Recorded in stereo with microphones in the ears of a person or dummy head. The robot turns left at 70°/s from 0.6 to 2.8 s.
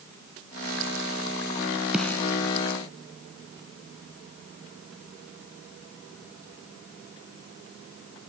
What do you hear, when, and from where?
1.9 s a snare drum: 5° right (ahead or behind); by 2.2 s 15° left (ahead or behind)